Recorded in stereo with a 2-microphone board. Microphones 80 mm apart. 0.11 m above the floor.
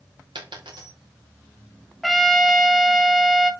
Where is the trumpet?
5° left (ahead or behind), 0.6 m.